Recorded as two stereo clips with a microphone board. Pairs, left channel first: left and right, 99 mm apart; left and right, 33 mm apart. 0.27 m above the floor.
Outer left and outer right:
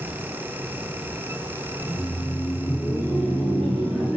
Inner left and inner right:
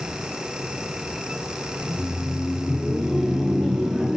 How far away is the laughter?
About 1.7 m.